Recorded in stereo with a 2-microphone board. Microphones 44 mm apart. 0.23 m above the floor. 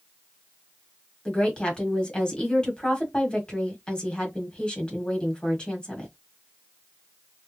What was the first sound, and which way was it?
A woman speaking, 20° left (ahead or behind).